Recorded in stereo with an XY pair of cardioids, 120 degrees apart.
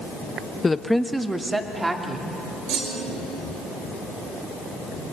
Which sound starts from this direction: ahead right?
A clunk, at 2.7 s.